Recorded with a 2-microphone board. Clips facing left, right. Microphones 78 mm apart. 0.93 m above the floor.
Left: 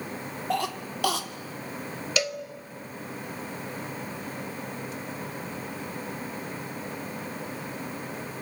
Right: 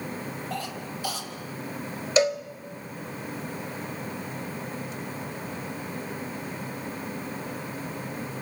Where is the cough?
75° left (ahead or behind), 2 m.